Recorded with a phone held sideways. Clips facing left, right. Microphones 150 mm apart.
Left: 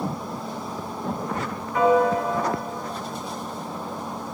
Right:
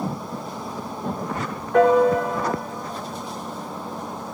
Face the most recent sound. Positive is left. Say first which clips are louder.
# right 3 dB
turn(degrees=-80)